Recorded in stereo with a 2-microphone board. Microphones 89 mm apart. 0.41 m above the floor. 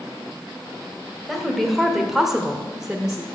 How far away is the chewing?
I don't hear chewing.